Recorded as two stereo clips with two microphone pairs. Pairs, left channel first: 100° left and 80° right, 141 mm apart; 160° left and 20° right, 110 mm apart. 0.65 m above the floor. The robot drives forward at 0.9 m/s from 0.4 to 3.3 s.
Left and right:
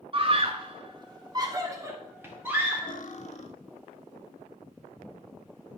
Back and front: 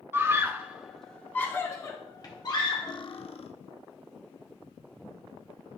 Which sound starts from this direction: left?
Cutlery clinking, at 2.9 s.